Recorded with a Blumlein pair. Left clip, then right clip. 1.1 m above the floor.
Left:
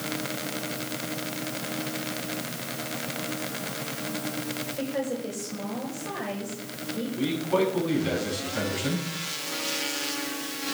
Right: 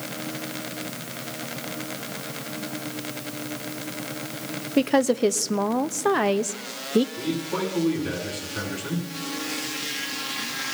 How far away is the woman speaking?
About 1.0 m.